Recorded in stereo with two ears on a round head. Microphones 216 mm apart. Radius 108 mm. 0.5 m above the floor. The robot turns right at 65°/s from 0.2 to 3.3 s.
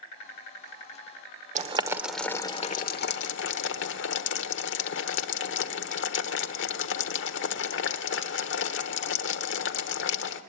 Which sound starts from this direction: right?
Boiling, at 1.6 s.